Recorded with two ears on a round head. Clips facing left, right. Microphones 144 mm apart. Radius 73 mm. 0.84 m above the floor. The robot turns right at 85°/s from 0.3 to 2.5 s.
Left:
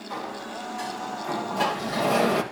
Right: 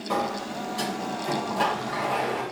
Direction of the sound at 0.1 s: 110° right.